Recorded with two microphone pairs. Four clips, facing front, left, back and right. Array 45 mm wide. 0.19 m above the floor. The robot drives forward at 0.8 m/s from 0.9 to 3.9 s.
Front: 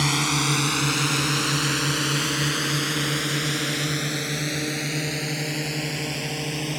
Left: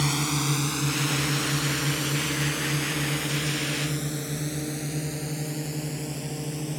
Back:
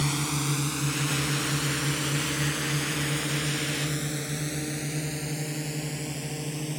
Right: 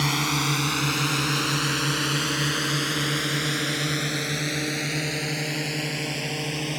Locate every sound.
0.0 s a drone: 30° right; by 6.8 s 55° right